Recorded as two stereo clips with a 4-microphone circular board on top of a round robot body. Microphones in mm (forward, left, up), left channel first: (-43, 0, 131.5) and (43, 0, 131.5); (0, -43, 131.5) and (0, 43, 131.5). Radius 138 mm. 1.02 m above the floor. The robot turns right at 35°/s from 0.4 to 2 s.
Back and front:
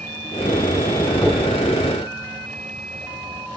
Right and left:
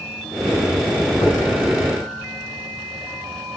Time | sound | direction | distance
1.2 | knocking | 115° right | 8 m